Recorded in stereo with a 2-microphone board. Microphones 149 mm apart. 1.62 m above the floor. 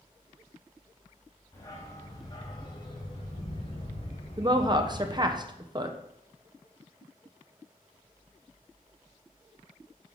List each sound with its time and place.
1.5 s a dog barking: 20° left (ahead or behind), 2.0 m; by 5.4 s 40° left (ahead or behind), 1.9 m
4.4 s a woman speaking: 30° right (ahead or behind), 0.6 m